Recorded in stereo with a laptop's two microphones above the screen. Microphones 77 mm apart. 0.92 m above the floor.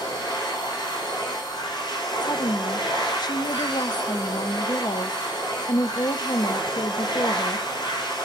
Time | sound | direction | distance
0.0 | a machine running | 80° left | 4 m
2.2 | a woman speaking | 65° left (ahead or behind) | 0.6 m